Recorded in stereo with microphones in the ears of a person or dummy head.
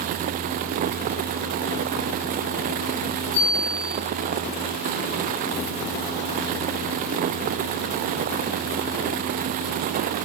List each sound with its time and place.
3.3 s a bicycle bell: 35° right (ahead or behind), 7 m